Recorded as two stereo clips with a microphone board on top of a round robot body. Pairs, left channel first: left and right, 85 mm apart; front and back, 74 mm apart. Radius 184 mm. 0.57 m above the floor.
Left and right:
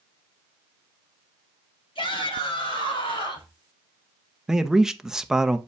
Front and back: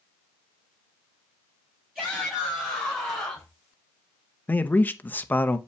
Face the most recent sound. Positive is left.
turn(degrees=-15)